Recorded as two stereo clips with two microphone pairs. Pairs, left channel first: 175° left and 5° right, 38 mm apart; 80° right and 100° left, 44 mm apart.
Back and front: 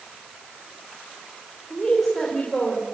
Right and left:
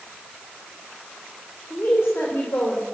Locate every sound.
1.7 s a woman speaking: 110° right, 4 m; by 2.8 s 100° right, 4.5 m